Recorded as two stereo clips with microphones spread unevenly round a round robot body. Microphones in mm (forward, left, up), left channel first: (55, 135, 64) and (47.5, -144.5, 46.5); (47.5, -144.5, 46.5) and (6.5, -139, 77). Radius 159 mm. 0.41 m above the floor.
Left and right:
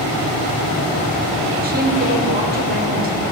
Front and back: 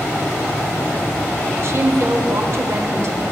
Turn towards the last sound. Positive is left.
turn(degrees=-140)